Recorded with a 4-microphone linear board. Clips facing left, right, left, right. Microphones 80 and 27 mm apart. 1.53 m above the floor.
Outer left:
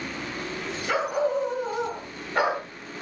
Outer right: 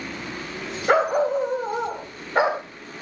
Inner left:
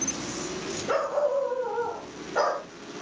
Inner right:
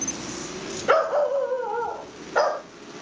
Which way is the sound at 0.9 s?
45° right (ahead or behind).